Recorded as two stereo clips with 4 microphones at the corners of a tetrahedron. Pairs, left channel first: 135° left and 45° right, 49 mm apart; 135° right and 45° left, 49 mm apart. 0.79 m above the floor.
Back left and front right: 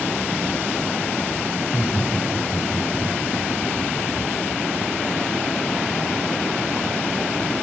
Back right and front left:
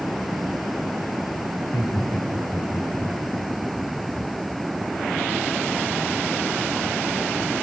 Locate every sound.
1.6 s laughter: 125° right, 4 m; by 3.2 s 135° right, 3.5 m